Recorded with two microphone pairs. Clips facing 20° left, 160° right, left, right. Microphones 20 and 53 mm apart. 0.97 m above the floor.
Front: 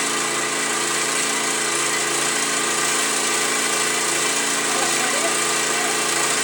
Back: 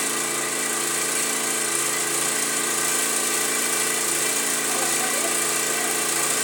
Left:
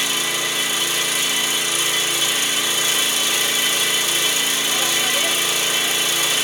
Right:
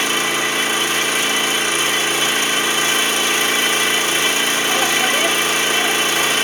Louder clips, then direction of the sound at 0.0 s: Front 4 dB, right 5 dB; 50° right.